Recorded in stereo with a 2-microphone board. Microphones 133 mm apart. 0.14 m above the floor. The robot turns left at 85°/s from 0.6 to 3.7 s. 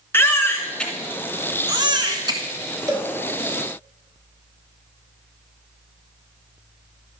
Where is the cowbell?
25° right (ahead or behind), 1.5 m; by 3.1 s 10° right (ahead or behind), 1.5 m.